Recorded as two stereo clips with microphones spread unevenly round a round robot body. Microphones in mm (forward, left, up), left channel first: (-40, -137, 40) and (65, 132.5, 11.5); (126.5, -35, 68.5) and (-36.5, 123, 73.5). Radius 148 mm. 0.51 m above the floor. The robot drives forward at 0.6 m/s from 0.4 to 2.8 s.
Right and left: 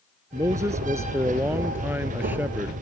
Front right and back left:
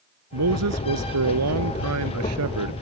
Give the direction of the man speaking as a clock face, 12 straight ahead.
7 o'clock.